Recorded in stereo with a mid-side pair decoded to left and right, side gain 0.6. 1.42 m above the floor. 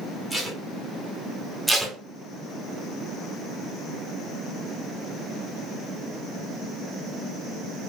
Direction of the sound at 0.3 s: Straight ahead.